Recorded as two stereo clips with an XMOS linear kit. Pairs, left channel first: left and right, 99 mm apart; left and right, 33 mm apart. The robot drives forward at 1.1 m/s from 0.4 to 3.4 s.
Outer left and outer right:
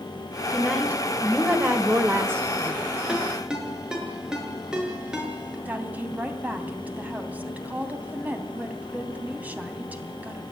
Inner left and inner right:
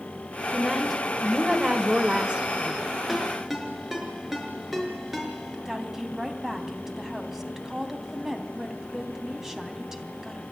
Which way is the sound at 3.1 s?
10° right (ahead or behind).